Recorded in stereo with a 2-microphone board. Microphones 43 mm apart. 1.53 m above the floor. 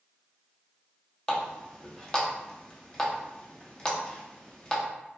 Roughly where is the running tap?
Centre.